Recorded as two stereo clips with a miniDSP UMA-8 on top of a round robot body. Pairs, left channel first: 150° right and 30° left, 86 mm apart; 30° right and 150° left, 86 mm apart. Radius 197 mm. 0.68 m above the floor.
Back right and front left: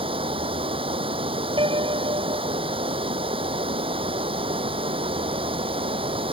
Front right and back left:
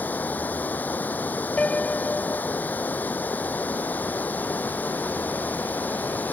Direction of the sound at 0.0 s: 40° left.